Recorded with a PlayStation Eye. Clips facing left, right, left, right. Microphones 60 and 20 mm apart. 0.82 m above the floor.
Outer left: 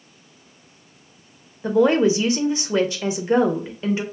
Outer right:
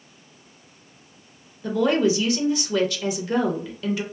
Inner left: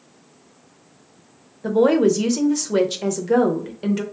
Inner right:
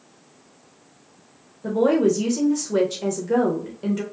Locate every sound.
1.6 s a woman speaking: 25° left (ahead or behind), 0.5 m